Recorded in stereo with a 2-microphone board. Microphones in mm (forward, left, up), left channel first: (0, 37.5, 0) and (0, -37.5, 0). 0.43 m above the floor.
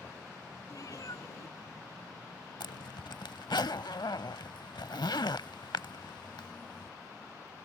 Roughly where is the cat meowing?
Left.